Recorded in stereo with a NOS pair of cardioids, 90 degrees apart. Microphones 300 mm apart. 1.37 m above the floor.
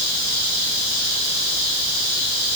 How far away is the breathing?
I don't hear breathing.